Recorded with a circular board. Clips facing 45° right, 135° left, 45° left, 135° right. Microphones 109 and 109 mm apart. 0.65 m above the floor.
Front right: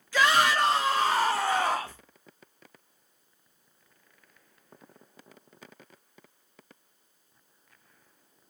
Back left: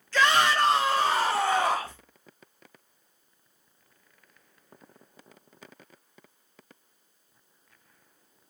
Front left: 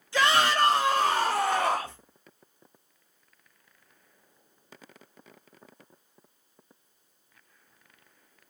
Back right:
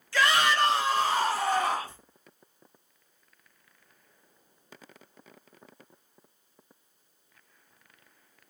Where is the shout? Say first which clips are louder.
Back left 1 dB, front left 1 dB; 15° left, 0.7 m; by 2.0 s 55° left, 1.4 m.